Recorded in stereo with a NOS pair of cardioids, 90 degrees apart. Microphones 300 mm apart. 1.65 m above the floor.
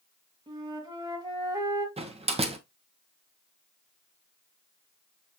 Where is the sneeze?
I don't hear a sneeze.